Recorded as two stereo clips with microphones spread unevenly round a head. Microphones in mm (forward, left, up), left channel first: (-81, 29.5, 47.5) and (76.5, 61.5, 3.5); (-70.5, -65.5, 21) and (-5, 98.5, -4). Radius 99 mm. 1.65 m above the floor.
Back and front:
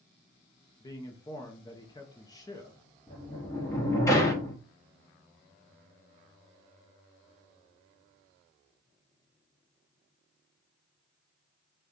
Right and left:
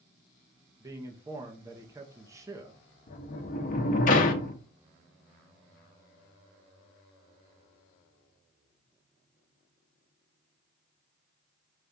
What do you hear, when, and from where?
0.8 s a man speaking: 145° left, 0.7 m
3.1 s a sliding door: 110° right, 0.8 m